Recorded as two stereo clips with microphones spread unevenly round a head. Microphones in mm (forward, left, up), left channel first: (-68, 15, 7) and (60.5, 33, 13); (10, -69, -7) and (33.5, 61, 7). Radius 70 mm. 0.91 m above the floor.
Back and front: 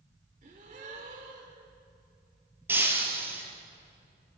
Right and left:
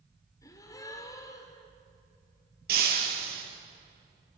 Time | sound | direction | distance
0.4 | a gasp | 35° right | 2.5 m
2.7 | breaking glass | 80° left | 4.5 m